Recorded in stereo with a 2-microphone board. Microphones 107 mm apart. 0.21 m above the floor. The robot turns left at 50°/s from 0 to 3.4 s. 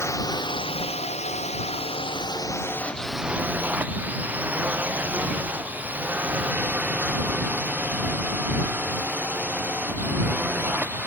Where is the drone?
25° left (ahead or behind); by 11.1 s 15° right (ahead or behind).